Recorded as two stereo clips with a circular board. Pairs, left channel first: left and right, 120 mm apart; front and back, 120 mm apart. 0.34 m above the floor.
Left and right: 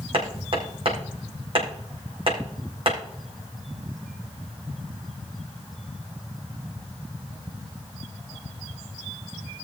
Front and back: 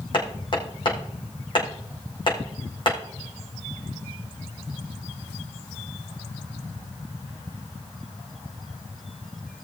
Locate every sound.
0.1 s hammering: 50° right, 4 m